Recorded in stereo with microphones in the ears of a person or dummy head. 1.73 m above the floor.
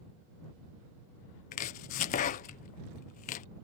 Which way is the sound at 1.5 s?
40° left (ahead or behind).